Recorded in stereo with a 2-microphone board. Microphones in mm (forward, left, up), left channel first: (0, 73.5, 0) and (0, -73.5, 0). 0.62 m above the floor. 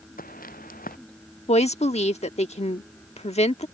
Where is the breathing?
No breathing in this recording.